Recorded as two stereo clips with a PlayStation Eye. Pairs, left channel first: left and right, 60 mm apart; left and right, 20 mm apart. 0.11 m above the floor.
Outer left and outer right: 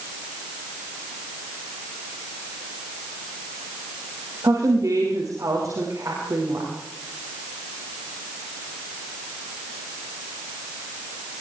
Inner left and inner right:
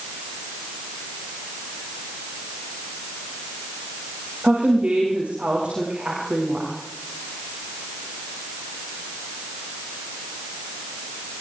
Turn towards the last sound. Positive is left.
turn(degrees=-70)  # may be behind; listen again after turning